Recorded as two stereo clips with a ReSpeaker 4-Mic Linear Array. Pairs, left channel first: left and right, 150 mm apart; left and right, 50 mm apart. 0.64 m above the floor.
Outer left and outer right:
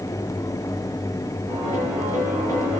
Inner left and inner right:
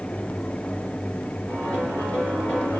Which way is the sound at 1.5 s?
25° left (ahead or behind).